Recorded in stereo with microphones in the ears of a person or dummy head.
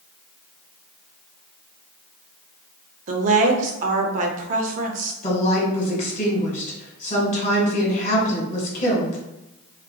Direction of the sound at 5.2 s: 45° left (ahead or behind).